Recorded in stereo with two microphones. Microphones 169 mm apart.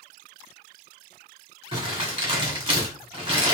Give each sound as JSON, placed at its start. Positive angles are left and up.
{"t": 1.7, "sound": "crumpling", "side_deg": -35, "distance_m": 2.0}